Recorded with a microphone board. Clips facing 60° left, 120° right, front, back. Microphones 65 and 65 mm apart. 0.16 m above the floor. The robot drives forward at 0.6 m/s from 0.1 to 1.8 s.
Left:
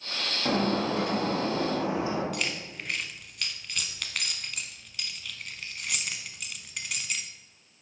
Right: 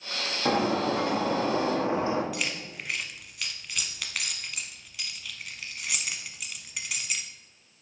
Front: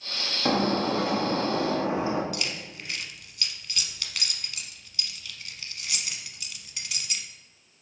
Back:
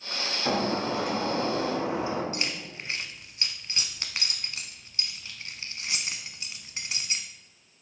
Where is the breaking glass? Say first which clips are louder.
Right 2 dB, front 3 dB; 50° right, 2.5 m; by 2.2 s 65° right, 2 m.